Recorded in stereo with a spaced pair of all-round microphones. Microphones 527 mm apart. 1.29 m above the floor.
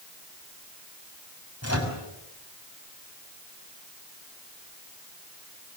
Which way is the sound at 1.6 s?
30° left (ahead or behind).